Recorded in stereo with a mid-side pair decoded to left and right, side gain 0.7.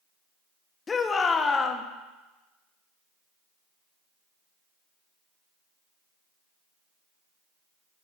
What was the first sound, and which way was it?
A shout, 25° left.